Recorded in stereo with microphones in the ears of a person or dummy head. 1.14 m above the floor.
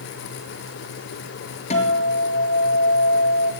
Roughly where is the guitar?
Left.